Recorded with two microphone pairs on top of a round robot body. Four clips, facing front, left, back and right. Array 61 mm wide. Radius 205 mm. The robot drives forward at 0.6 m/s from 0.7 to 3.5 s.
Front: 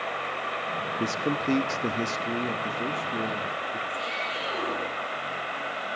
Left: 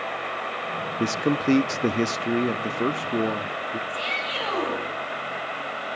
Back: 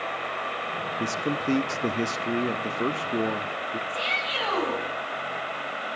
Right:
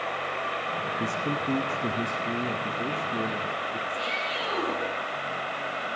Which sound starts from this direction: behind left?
A shout, at 3.9 s.